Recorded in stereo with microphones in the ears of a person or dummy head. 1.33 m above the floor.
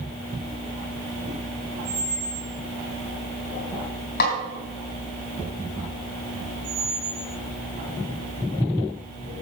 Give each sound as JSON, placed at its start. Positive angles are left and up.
{"t": 1.9, "sound": "a squeak", "side_deg": -30, "distance_m": 2.5}
{"t": 4.2, "sound": "a snare drum", "side_deg": 55, "distance_m": 3.0}
{"t": 6.6, "sound": "a squeak", "side_deg": -40, "distance_m": 4.5}